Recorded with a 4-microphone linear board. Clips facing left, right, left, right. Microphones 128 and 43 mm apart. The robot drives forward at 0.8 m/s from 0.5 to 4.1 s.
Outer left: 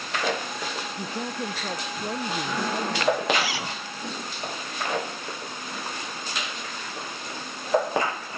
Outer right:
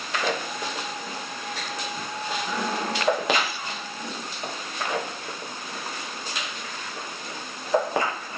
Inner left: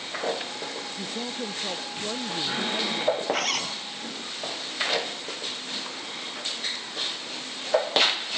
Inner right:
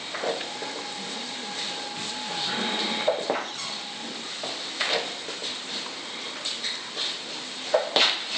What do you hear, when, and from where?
1.0 s a woman speaking: 60° left (ahead or behind); by 3.2 s 55° left (ahead or behind)
3.3 s a zipper: 85° left